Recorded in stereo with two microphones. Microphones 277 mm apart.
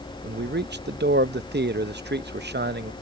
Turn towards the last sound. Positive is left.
turn(degrees=-40)  # may be behind; listen again after turning